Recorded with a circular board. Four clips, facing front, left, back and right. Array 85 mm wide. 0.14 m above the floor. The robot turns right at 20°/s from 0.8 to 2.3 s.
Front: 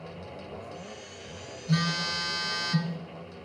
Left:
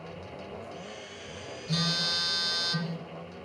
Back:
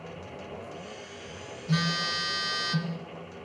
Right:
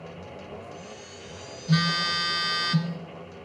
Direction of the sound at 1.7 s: 100° right.